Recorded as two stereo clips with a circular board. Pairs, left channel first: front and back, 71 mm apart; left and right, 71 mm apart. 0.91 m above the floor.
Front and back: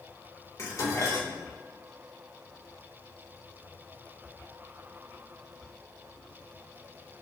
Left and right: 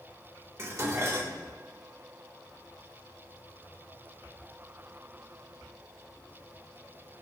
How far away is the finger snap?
I don't hear a finger snap.